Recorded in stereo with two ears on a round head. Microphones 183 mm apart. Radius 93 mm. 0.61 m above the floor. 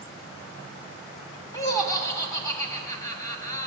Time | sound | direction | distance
1.5 | laughter | 15° left (ahead or behind) | 1.2 m